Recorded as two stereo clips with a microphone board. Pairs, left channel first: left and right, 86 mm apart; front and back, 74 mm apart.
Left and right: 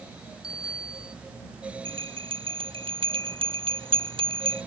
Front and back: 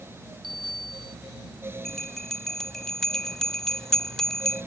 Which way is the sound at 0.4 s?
175° right.